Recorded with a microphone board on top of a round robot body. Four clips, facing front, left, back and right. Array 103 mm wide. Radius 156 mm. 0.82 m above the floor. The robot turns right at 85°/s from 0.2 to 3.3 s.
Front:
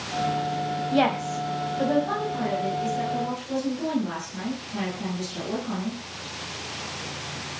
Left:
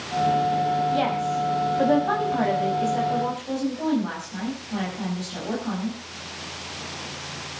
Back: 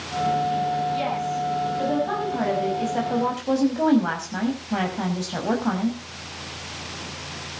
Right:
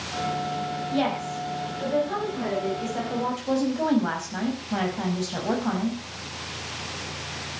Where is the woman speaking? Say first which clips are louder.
Left 3 dB, front 2 dB; straight ahead, 5.5 m; by 6.0 s 155° right, 5.5 m.